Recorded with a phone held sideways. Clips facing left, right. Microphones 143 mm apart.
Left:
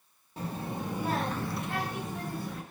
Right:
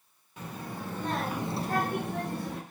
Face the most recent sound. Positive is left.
turn(degrees=-75)  # may be behind; listen again after turning